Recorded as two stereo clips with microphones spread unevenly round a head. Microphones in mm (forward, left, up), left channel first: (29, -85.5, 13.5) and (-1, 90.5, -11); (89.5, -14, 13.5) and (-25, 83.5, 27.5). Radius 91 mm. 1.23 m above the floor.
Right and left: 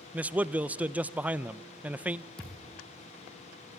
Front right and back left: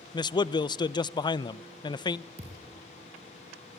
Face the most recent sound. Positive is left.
turn(degrees=-165)